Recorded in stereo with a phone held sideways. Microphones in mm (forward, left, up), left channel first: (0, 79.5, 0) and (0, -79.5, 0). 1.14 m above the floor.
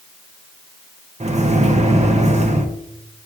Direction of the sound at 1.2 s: 45° right (ahead or behind).